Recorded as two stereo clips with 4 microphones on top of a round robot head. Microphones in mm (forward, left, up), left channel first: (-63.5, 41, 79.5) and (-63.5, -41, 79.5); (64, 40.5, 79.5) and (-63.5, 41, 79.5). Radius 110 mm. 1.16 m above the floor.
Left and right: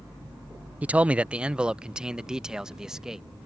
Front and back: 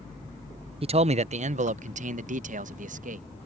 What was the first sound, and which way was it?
A man speaking, 160° right.